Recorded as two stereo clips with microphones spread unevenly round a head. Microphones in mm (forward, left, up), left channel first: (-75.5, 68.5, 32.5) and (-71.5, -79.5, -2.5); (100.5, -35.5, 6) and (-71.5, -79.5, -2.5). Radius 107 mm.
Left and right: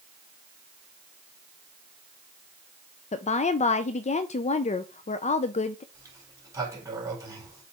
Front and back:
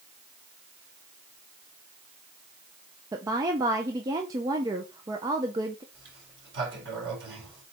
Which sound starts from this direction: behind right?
A sliding door, at 5.9 s.